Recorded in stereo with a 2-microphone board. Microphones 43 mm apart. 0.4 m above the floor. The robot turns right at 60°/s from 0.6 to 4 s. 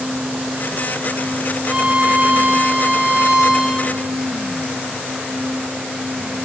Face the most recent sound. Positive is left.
turn(degrees=-5)